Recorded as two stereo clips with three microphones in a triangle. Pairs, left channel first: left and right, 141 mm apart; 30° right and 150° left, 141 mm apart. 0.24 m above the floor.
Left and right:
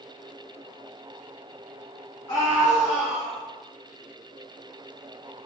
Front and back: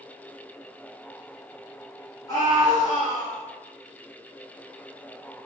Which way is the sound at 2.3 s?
35° left.